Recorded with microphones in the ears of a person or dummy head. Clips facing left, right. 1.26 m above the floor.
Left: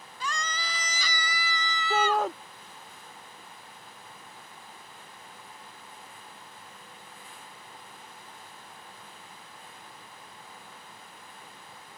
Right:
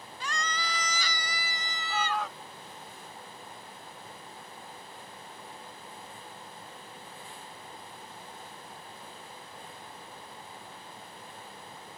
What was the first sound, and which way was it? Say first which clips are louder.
A scream: left 1 dB; 80° left.